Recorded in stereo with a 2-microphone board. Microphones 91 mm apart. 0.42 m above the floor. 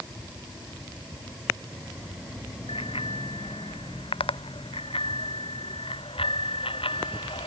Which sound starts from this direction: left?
A bicycle bell, at 2.7 s.